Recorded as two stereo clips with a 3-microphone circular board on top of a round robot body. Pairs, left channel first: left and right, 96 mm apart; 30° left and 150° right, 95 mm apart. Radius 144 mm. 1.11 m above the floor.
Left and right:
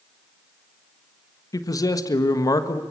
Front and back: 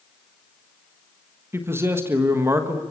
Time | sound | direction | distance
1.5 | a man speaking | 145° left | 1.6 m